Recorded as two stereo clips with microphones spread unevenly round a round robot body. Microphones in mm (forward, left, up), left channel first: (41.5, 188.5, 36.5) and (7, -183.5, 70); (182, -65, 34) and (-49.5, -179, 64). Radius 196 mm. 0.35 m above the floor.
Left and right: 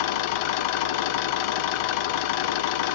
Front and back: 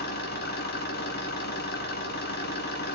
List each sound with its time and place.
0.0 s an engine running: 90° left, 1.3 m